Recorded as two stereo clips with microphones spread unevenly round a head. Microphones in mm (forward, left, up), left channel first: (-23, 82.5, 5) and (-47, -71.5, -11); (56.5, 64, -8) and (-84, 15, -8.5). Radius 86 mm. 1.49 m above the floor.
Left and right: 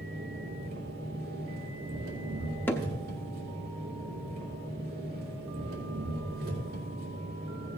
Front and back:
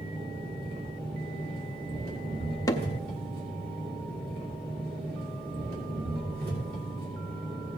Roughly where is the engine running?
Behind right.